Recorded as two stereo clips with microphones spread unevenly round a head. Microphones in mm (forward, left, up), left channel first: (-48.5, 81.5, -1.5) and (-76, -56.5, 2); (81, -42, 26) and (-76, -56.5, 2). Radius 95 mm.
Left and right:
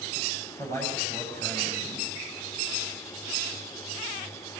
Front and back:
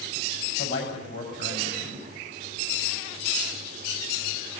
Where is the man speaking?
Straight ahead, 7.5 m.